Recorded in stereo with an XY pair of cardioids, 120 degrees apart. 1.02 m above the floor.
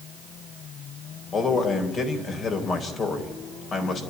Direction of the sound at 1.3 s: 40° left.